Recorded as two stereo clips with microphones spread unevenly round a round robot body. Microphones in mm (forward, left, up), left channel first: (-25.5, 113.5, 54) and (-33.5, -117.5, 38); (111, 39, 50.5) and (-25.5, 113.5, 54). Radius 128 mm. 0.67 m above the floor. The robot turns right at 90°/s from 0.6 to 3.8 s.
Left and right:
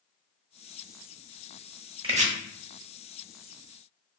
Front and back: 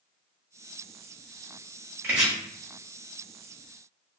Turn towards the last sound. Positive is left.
turn(degrees=20)